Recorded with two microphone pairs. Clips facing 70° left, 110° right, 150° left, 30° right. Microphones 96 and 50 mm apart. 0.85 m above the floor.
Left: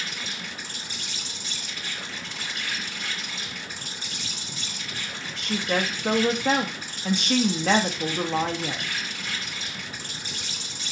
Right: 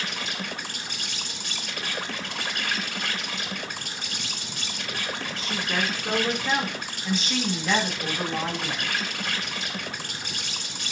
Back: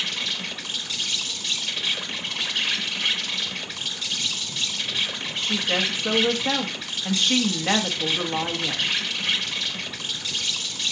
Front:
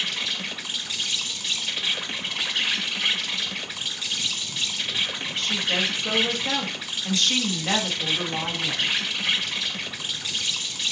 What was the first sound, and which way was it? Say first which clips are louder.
An insect: right 3 dB, even; 110° right.